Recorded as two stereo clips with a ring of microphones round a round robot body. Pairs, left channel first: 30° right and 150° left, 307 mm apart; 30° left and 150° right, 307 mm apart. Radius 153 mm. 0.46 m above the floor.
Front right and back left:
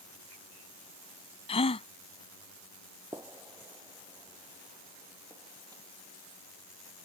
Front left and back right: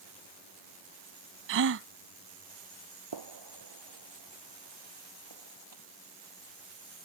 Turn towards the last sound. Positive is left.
turn(degrees=-130)